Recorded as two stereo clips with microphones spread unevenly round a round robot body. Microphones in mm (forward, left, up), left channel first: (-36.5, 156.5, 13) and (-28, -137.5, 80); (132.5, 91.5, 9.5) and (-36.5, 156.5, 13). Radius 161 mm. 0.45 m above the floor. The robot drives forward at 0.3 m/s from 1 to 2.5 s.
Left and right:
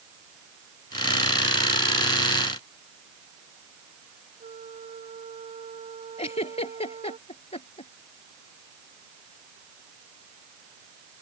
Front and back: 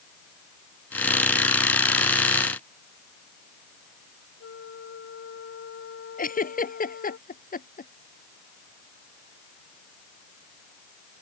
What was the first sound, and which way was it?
A flute, 15° right.